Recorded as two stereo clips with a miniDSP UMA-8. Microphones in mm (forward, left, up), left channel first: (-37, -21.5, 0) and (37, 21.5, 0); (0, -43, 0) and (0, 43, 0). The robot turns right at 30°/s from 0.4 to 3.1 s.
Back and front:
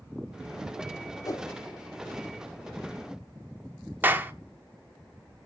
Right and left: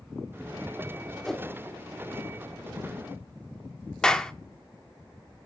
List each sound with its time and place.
1.2 s a whoosh: 175° right, 0.5 m; by 1.5 s 165° right, 0.5 m
4.0 s a clap: 15° right, 0.7 m